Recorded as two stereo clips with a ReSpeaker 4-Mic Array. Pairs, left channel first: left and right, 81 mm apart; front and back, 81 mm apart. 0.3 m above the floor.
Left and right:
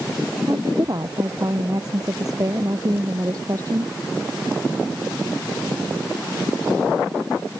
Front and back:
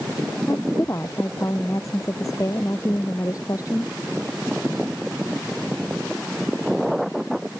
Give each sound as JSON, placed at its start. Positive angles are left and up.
{"t": 0.5, "sound": "a woman speaking", "azimuth_deg": -50}